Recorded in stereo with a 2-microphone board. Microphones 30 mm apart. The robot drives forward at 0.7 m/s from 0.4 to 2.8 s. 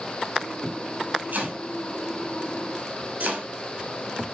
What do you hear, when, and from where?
1.3 s chopping: 70° right (ahead or behind), 5.5 m; by 3.5 s 80° right, 5 m